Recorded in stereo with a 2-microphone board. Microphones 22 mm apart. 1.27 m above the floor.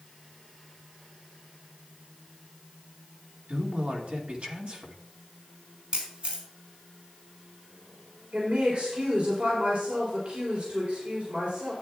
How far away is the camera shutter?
About 4 m.